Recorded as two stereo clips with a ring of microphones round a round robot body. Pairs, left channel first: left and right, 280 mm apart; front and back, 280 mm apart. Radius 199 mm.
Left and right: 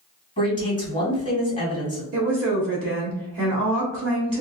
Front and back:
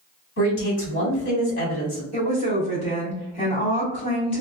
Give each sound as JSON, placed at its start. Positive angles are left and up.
{"t": 0.4, "sound": "a man speaking", "azimuth_deg": 30, "distance_m": 1.9}
{"t": 2.1, "sound": "a woman speaking", "azimuth_deg": -70, "distance_m": 1.4}